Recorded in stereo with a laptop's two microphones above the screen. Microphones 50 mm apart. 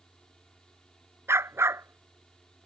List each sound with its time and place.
0.0 s a fan: 15° left (ahead or behind)
1.3 s a dog barking: 60° right (ahead or behind)